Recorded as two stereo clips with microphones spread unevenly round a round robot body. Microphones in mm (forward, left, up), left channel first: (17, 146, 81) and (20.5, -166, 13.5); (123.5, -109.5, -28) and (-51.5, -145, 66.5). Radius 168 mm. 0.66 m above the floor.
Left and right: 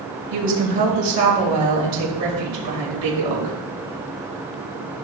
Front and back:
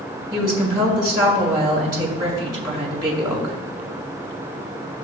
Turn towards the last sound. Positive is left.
turn(degrees=-95)